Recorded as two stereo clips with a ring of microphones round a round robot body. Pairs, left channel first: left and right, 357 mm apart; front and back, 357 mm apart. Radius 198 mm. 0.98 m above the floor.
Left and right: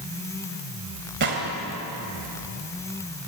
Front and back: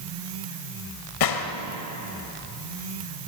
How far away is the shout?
I don't hear a shout.